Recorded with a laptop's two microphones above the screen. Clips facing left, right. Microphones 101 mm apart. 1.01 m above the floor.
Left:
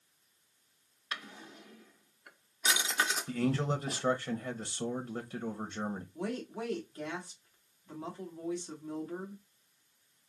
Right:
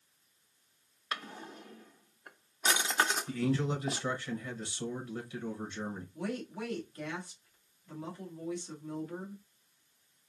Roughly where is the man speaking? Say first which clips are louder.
Even; left.